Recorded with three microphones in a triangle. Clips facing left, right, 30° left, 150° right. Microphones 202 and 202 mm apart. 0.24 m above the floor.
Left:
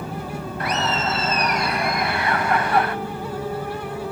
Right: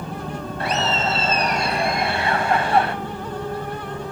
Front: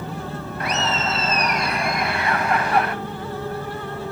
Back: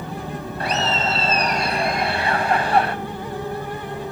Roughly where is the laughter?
Behind right.